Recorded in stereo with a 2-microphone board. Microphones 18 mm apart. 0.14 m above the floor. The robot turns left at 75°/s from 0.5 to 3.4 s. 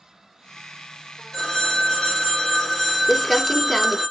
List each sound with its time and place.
1.3 s a phone ringing: 130° left, 1.6 m; by 4.1 s 25° right, 1.6 m
3.1 s crumpling: 5° right (ahead or behind), 0.5 m; by 4.0 s 10° left (ahead or behind), 0.5 m